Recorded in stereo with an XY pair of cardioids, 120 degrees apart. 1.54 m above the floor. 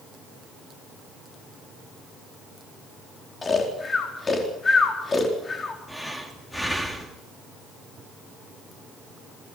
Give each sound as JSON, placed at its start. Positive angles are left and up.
{"t": 3.4, "sound": "snoring", "azimuth_deg": 25, "distance_m": 4.0}
{"t": 5.9, "sound": "breathing", "azimuth_deg": 5, "distance_m": 3.0}